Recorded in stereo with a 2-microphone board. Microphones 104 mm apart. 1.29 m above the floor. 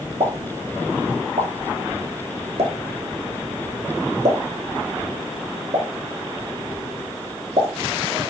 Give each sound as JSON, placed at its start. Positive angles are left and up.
{"t": 0.2, "sound": "a pop", "side_deg": -70, "distance_m": 1.5}